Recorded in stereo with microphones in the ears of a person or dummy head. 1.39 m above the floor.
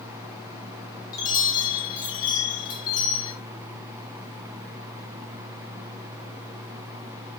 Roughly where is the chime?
Left.